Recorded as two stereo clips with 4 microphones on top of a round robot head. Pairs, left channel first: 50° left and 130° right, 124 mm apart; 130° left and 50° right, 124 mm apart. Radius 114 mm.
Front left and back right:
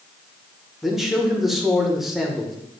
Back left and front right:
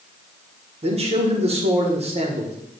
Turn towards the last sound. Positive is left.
turn(degrees=-40)